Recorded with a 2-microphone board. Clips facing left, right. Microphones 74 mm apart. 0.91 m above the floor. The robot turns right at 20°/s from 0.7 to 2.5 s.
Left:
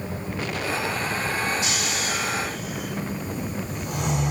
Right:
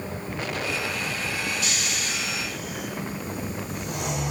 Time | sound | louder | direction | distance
1.6 | snoring | left 3 dB | 15° left (ahead or behind) | 1.8 m